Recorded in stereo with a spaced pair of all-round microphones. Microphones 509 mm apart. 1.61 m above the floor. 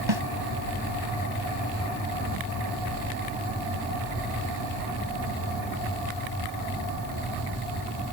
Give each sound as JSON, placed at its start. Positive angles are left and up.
{"t": 0.1, "sound": "a snare drum", "side_deg": -60}